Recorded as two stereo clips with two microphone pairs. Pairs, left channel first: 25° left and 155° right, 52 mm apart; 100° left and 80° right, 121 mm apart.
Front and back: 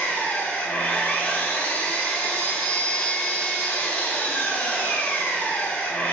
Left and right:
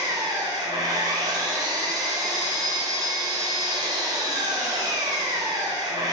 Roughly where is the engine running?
Ahead right.